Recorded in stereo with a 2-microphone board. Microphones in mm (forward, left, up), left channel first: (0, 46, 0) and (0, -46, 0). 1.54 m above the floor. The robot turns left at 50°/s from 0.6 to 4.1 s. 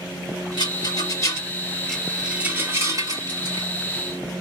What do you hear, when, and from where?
0.6 s a rattle: 65° left (ahead or behind), 2 m; by 4.4 s 65° right (ahead or behind), 2 m